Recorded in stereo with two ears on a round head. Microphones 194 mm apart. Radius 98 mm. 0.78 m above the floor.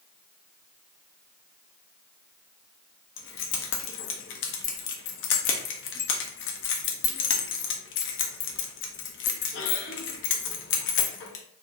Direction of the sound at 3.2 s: 55° left (ahead or behind).